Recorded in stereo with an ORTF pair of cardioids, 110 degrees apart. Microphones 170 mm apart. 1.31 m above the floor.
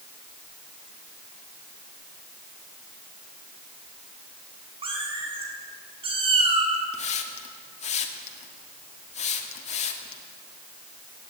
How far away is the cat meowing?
About 5.5 m.